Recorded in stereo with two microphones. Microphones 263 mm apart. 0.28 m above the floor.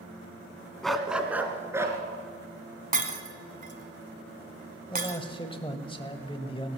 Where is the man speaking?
20° left (ahead or behind), 1.1 m.